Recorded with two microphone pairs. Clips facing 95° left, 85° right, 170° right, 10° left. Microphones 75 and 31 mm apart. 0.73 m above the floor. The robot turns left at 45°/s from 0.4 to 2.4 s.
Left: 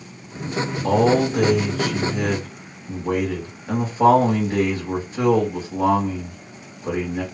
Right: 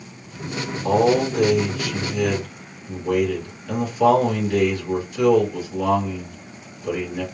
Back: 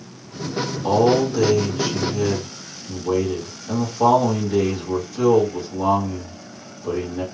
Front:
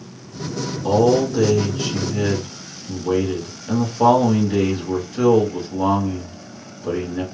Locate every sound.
0.8 s a man speaking: 115° left, 1.9 m; by 7.2 s 45° left, 1.9 m